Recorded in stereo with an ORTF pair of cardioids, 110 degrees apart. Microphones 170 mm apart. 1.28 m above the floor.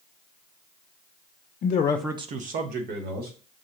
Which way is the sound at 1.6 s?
55° left.